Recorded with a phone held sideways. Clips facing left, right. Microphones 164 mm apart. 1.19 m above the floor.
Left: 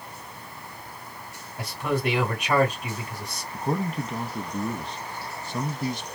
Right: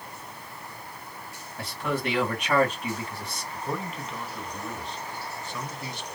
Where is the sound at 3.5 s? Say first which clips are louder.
Left 6 dB; 40° left (ahead or behind), 1.4 m.